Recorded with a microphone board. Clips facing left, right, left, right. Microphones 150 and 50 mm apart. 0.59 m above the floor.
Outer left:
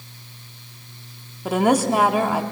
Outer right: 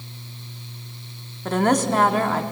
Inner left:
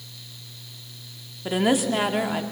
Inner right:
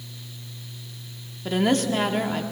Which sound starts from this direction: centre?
A woman speaking, at 1.4 s.